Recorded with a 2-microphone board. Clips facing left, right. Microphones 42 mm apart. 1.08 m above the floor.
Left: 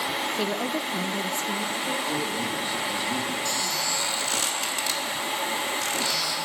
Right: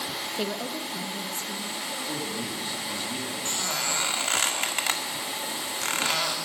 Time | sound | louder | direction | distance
0.4 | a woman speaking | left 4 dB | 5° right (ahead or behind) | 0.6 m
2.1 | a man speaking | left 5 dB | 5° left (ahead or behind) | 2.5 m
3.5 | a squeak | left 2 dB | 50° right (ahead or behind) | 1.7 m